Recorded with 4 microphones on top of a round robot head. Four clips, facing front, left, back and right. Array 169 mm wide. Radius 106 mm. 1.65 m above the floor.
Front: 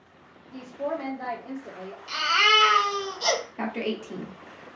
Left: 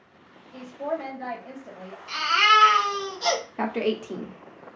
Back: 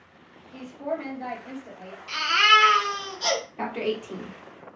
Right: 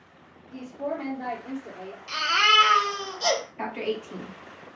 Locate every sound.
0.5 s a woman speaking: 35° right, 1.3 m
2.1 s a baby crying: 60° right, 1.4 m
3.6 s a woman speaking: 85° left, 0.9 m